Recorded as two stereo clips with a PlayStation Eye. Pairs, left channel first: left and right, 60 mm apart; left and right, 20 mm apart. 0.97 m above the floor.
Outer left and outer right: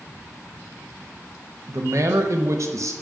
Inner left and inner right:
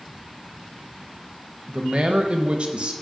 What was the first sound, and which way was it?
A man speaking, 60° right (ahead or behind).